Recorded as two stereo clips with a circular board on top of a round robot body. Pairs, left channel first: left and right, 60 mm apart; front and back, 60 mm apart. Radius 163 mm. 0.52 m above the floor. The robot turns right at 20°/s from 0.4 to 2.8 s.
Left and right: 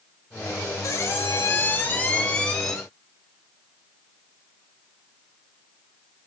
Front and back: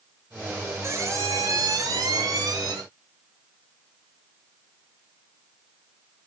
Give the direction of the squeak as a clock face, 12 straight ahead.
8 o'clock.